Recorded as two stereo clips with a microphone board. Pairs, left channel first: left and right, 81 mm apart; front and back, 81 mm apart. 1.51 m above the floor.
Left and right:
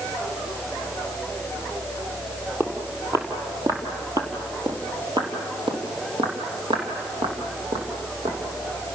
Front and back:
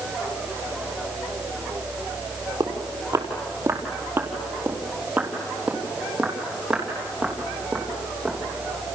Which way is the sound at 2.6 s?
145° right.